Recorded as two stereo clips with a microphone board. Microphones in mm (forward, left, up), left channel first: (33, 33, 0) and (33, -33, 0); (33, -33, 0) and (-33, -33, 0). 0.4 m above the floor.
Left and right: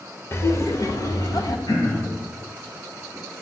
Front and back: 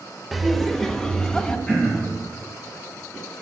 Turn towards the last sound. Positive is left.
turn(degrees=75)